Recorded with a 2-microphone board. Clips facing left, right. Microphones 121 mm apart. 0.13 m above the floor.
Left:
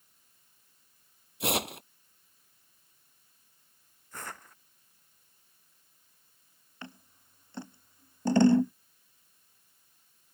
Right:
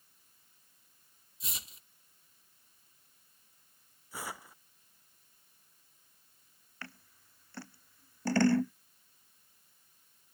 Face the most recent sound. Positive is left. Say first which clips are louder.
# left 4 dB
turn(degrees=20)  # may be behind; listen again after turning